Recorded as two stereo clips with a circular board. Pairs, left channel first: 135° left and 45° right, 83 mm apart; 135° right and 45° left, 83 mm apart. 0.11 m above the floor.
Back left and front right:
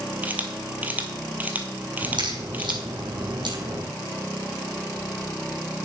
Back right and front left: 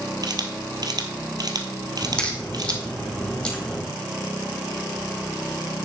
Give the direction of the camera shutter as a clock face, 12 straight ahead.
11 o'clock.